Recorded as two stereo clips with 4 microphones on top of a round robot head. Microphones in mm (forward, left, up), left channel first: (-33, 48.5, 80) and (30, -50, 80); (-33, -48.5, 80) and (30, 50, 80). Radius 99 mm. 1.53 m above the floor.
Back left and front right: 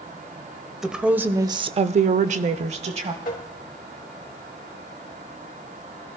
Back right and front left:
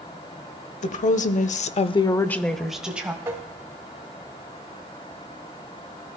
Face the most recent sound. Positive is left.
turn(degrees=120)